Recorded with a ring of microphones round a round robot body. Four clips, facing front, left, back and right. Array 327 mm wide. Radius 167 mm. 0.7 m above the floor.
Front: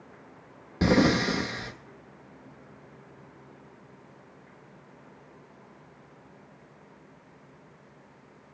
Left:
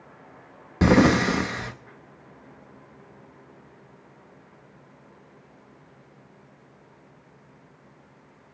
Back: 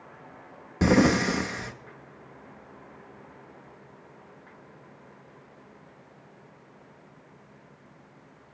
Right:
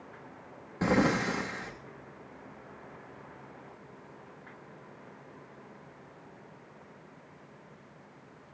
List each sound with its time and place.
0.8 s breathing: 100° left, 0.6 m